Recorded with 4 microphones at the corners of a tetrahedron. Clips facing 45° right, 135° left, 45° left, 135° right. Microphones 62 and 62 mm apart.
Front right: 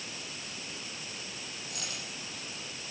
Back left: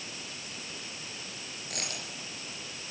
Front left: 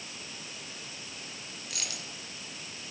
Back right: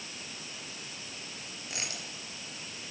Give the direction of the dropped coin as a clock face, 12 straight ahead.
7 o'clock.